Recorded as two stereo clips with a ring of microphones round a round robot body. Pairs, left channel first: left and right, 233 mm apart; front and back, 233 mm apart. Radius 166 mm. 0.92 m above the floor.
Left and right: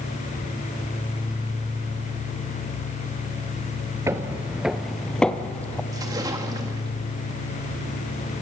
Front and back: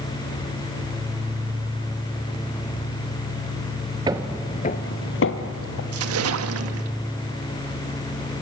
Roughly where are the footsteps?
Behind right.